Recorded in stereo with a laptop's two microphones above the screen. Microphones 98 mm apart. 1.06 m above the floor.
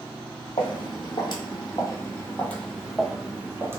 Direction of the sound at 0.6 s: 55° left (ahead or behind).